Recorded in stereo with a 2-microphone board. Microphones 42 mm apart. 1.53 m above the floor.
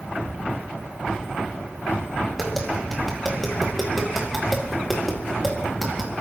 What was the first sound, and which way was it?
Tapping, centre (ahead or behind).